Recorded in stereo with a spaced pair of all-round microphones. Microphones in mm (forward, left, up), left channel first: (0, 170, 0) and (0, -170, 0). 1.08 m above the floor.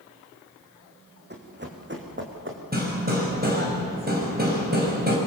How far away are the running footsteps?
About 4 m.